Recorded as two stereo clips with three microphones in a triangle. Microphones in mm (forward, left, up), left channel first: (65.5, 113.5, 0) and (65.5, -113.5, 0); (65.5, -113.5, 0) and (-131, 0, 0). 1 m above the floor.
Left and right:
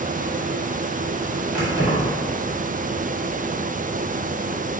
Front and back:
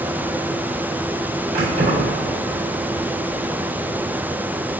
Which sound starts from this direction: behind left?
Keys jangling, at 1.5 s.